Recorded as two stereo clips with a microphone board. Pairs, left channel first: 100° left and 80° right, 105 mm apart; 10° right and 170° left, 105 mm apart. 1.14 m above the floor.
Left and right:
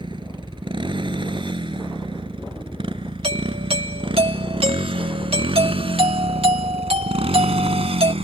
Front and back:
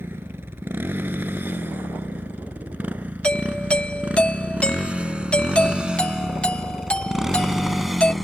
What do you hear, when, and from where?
0.0 s a motorcycle: 120° right; by 8.2 s 100° right
3.2 s a doorbell: 90° right